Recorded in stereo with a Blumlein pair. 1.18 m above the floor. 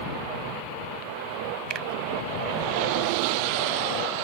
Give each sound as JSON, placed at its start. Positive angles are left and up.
{"t": 1.7, "sound": "a finger snap", "azimuth_deg": -35}